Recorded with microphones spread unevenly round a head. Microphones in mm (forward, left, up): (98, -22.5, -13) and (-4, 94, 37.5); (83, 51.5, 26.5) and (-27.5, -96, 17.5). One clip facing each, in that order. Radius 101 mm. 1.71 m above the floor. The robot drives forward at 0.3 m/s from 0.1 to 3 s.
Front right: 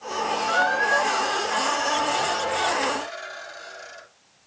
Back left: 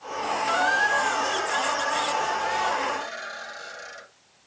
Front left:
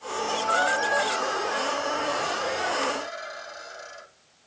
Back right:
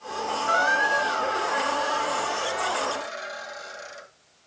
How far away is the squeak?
About 0.8 m.